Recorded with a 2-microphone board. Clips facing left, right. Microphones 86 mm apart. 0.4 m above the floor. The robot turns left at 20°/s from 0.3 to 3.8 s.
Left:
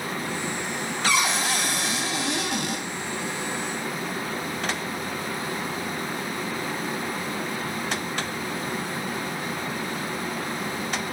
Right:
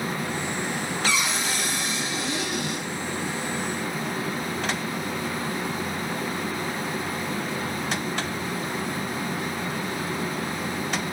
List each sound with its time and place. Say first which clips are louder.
1.1 s a cupboard door: left 5 dB; 125° left, 0.6 m; by 2.9 s 90° left, 0.6 m